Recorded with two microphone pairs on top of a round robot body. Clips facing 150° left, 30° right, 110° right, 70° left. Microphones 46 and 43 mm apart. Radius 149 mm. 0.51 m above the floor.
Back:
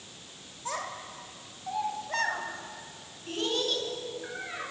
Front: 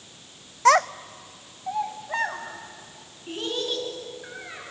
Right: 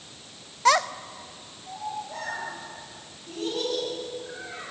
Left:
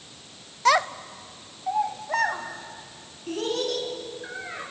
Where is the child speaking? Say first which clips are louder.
Front 18 dB, even; 25° right, 0.6 m; by 4.6 s 55° left, 6 m.